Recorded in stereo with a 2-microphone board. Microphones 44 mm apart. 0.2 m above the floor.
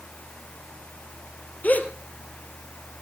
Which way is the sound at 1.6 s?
40° left (ahead or behind).